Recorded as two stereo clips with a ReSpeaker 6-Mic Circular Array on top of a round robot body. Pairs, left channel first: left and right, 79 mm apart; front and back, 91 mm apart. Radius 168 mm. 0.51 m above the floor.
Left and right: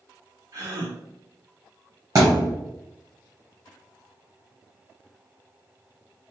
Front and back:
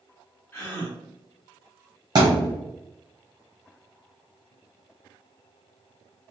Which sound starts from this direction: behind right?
A thud, at 2.1 s.